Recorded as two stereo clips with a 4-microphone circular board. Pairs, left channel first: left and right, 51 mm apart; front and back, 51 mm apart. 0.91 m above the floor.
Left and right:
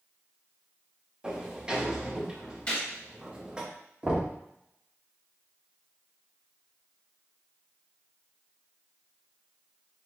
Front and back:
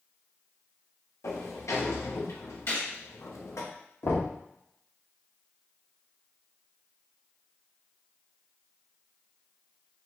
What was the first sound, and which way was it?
A sliding door, 20° right.